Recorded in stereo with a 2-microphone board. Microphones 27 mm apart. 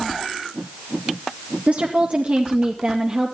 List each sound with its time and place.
1.7 s a woman speaking: 65° right (ahead or behind), 2 m; by 3.4 s 40° right (ahead or behind), 2.5 m